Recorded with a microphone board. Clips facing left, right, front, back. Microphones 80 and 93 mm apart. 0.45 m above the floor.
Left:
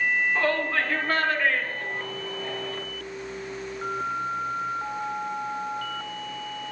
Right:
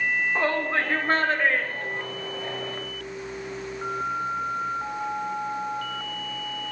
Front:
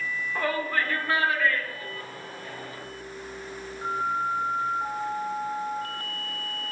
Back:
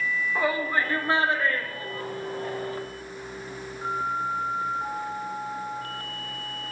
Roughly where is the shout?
Right.